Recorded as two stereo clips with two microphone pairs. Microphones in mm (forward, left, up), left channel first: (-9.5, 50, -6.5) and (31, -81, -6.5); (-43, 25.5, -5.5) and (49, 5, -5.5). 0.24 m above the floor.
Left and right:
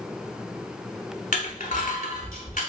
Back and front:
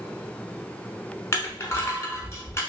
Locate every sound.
1.3 s crushing: 105° left, 0.8 m